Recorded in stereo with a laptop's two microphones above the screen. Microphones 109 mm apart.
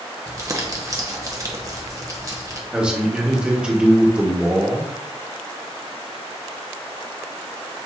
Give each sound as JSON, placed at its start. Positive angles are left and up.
{"t": 0.3, "sound": "crumpling", "side_deg": -30, "distance_m": 0.8}
{"t": 2.7, "sound": "a man speaking", "side_deg": -10, "distance_m": 1.1}